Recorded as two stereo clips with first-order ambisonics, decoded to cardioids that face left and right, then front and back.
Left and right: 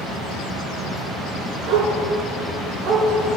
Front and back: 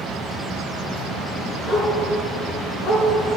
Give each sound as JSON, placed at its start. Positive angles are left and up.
{"t": 1.7, "sound": "a dog barking", "azimuth_deg": -55, "distance_m": 3.5}